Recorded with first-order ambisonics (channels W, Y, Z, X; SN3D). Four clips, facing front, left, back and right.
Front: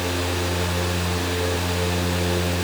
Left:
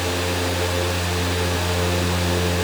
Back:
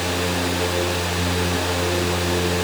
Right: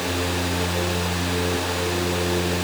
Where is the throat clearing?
I don't hear throat clearing.